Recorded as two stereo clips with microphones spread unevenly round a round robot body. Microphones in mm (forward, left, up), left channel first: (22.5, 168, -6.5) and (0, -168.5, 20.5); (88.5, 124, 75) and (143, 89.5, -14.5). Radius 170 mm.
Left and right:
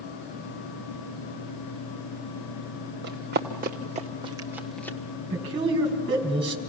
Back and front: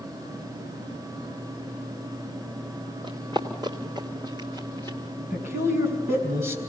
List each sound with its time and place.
3.0 s running footsteps: 155° right, 1.8 m; by 5.0 s 165° left, 0.8 m
5.3 s a man speaking: 170° right, 4 m